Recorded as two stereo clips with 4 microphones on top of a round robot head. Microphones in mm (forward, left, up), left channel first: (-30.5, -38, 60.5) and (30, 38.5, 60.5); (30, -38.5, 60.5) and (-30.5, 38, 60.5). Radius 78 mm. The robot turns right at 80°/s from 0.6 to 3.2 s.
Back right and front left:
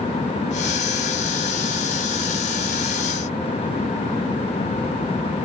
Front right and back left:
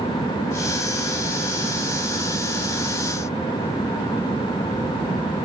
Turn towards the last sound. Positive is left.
No sound to turn to.